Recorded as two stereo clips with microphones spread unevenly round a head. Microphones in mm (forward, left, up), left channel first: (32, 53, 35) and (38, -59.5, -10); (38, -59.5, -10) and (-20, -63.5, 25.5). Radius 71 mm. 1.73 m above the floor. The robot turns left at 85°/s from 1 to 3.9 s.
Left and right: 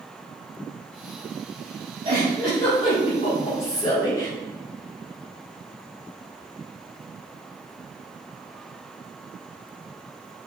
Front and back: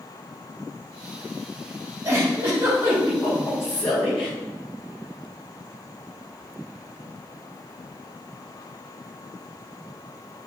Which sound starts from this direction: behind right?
A giggle, at 2.0 s.